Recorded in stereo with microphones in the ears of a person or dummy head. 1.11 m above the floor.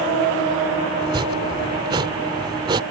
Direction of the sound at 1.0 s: 20° right (ahead or behind).